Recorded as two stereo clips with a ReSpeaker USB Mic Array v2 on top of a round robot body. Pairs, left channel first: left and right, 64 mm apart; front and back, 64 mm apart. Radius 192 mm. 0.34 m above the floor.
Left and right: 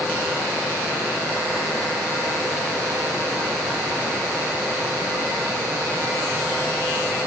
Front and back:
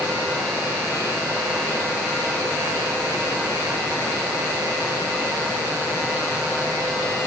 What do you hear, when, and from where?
Only background noise.